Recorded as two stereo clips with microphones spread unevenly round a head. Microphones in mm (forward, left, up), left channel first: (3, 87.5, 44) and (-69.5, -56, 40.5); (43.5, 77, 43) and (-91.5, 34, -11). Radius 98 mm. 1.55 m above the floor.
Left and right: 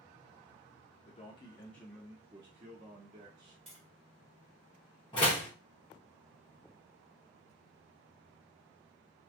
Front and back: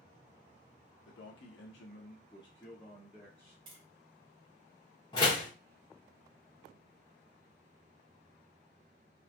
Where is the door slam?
Straight ahead, 1.0 m.